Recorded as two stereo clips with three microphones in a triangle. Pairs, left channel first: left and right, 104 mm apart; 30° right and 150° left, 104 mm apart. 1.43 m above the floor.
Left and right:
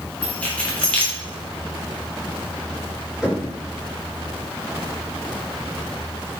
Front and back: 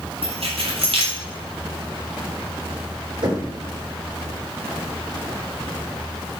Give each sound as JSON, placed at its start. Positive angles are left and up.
{"t": 0.2, "sound": "keys jangling", "azimuth_deg": 165, "distance_m": 3.5}
{"t": 3.2, "sound": "knocking", "azimuth_deg": -175, "distance_m": 4.5}